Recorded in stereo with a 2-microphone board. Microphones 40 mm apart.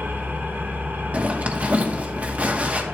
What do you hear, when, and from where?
0.0 s an engine running: 70° right (ahead or behind), 2.5 m
1.1 s a zipper: 45° right (ahead or behind), 1.1 m